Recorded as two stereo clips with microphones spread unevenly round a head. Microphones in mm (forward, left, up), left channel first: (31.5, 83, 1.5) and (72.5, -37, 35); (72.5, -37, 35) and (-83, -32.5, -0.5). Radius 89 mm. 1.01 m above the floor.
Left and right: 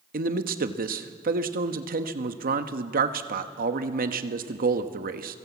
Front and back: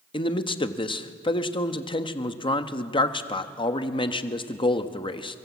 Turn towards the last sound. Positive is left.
turn(degrees=-65)